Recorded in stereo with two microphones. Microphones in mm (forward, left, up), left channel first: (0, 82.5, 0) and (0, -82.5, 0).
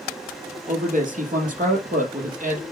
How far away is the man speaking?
About 3 m.